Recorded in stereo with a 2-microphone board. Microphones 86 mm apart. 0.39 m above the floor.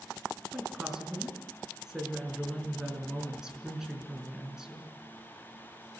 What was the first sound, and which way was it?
A woman speaking, 5° right (ahead or behind).